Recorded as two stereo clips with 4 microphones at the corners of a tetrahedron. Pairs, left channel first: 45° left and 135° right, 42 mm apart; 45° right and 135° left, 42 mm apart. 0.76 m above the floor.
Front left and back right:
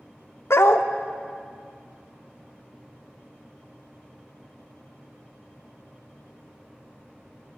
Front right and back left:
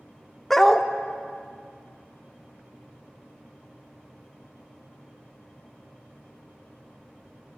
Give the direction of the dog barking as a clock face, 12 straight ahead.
11 o'clock.